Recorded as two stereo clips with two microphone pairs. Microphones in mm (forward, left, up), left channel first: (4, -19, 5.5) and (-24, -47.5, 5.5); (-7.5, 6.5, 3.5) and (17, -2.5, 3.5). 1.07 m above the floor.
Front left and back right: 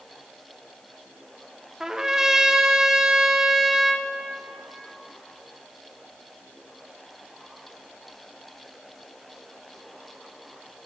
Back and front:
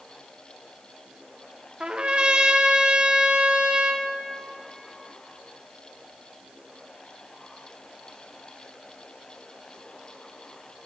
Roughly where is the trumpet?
Ahead right.